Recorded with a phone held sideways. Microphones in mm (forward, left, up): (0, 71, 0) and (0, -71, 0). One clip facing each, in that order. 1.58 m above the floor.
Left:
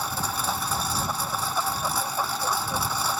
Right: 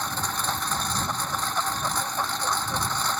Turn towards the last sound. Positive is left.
turn(degrees=10)  # may be behind; listen again after turning